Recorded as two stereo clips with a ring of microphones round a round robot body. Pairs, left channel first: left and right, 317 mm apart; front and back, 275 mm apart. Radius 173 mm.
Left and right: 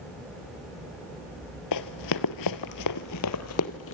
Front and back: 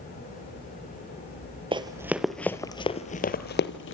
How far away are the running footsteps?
About 1.3 m.